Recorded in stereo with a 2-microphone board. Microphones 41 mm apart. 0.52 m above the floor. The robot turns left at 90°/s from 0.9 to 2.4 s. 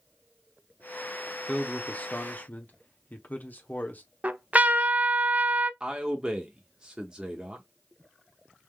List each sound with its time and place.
1.5 s a man speaking: 170° left, 0.9 m; by 4.0 s 85° left, 0.9 m
4.2 s a trumpet: 35° right (ahead or behind), 0.5 m
5.8 s a man speaking: 15° right (ahead or behind), 0.7 m